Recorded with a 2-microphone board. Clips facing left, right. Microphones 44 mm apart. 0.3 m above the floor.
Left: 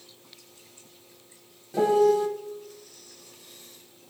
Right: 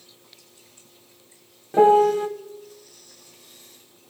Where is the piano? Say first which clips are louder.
Right 5 dB; 30° right (ahead or behind), 0.7 m.